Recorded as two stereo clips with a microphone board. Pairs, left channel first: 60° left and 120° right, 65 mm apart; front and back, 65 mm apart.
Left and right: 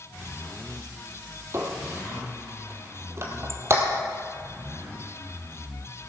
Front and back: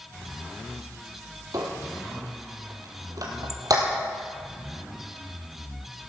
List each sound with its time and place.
1.5 s a squeak: 165° right, 1.6 m